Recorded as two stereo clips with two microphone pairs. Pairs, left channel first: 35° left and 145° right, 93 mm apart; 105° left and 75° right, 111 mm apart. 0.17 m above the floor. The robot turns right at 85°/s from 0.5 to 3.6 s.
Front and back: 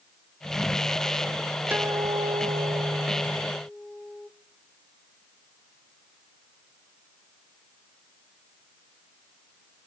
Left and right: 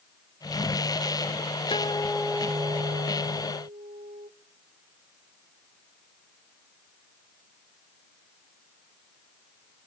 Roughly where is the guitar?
Behind left.